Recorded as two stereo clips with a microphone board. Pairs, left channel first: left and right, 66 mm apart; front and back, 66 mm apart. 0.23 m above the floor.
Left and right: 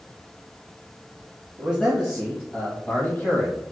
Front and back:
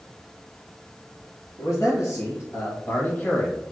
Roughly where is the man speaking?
Ahead.